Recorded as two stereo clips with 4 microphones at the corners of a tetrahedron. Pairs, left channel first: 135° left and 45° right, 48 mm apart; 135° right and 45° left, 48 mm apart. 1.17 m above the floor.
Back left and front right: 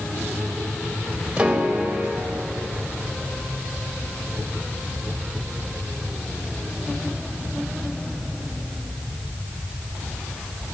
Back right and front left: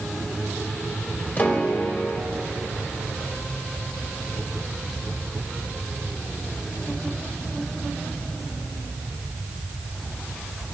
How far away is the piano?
About 1.2 m.